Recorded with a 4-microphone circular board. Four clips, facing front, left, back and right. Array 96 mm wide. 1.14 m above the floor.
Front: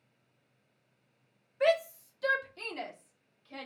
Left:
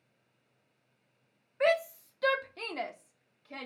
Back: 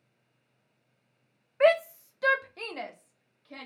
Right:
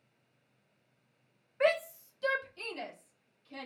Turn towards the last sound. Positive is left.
turn(degrees=120)